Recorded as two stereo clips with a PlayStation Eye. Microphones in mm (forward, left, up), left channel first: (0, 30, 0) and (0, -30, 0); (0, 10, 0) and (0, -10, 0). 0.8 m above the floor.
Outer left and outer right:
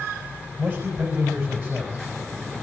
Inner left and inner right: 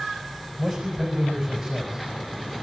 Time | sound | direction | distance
0.6 | a man speaking | 35° right (ahead or behind) | 4.5 m